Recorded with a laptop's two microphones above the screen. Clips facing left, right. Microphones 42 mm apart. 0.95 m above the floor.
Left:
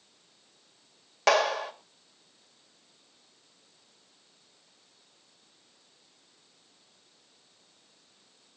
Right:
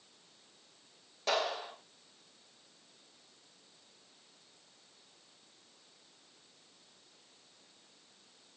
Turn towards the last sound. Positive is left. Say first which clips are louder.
# left 9 dB
turn(degrees=80)